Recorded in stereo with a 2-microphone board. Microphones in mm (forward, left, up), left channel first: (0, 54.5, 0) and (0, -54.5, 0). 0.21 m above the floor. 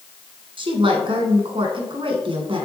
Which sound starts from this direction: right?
A woman speaking, at 0.6 s.